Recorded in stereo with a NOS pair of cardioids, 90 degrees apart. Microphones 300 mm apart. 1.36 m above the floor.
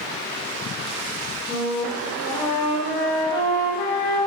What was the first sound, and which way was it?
A flute, 25° left.